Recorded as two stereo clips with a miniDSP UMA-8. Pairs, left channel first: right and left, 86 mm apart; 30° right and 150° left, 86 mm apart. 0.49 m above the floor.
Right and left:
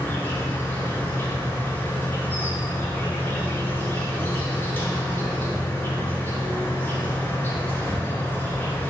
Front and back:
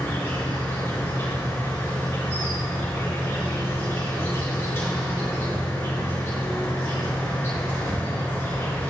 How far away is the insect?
About 2 m.